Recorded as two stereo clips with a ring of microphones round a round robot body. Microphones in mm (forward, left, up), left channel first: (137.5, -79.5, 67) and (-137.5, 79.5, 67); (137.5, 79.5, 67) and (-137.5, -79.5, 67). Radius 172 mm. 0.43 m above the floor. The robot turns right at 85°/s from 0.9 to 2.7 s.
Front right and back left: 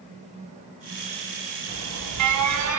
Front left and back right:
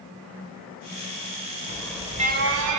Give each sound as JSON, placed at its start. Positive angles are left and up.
{"t": 1.7, "sound": "an alarm", "azimuth_deg": 100, "distance_m": 2.0}